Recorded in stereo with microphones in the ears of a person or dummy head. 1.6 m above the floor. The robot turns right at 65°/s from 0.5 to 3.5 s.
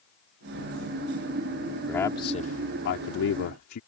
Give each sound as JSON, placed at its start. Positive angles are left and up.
{"t": 1.9, "sound": "a man speaking", "azimuth_deg": 10}